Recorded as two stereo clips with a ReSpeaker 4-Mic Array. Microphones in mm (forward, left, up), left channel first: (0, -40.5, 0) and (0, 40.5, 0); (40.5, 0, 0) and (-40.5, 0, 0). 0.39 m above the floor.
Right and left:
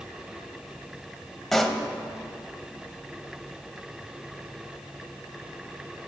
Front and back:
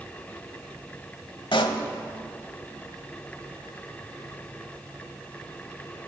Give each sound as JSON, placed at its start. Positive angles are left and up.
{"t": 1.5, "sound": "a pop", "azimuth_deg": -5, "distance_m": 0.7}